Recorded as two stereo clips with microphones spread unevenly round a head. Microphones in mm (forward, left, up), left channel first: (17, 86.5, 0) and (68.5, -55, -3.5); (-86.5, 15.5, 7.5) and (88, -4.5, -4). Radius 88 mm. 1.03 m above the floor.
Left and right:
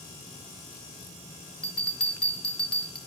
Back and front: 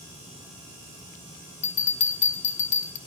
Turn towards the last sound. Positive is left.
turn(degrees=-170)